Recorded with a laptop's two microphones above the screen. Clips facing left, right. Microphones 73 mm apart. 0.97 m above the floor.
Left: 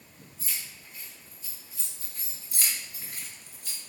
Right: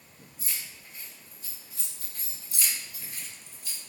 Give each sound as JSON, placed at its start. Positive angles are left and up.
{"t": 0.4, "sound": "keys jangling", "side_deg": -10, "distance_m": 0.8}
{"t": 2.5, "sound": "keys jangling", "side_deg": 50, "distance_m": 0.7}